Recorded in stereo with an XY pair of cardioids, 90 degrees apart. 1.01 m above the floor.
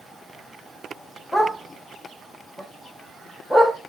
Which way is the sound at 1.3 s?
10° left.